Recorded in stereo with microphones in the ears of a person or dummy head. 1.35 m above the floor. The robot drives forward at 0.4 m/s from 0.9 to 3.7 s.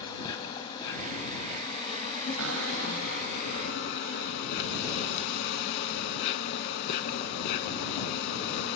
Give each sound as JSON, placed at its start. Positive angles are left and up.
{"t": 0.0, "sound": "an insect", "side_deg": 30, "distance_m": 2.0}
{"t": 2.4, "sound": "a cupboard door", "side_deg": -75, "distance_m": 6.0}